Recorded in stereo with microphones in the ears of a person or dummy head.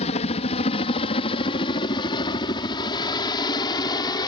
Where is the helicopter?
35° left (ahead or behind); by 4.3 s 25° left (ahead or behind).